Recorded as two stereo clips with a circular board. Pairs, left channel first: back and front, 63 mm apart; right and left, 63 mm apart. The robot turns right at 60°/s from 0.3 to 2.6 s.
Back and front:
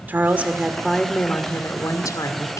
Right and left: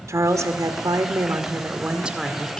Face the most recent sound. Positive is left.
turn(degrees=-165)